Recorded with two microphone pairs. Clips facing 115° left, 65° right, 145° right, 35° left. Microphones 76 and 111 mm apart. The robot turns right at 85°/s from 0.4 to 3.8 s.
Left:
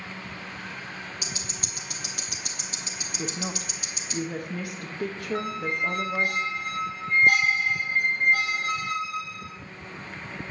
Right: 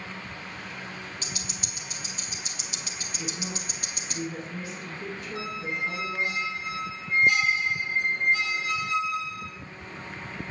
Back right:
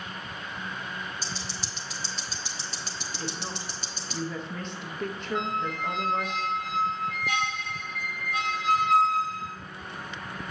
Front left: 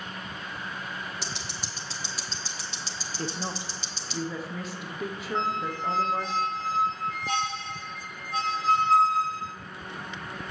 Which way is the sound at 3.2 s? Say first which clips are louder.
Left 3 dB, front left 4 dB; 70° left.